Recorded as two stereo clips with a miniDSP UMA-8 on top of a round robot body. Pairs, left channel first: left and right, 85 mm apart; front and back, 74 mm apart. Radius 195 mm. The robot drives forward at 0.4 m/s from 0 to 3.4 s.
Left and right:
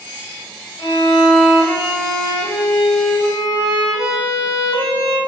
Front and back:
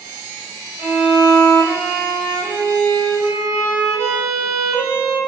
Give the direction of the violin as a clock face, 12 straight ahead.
9 o'clock.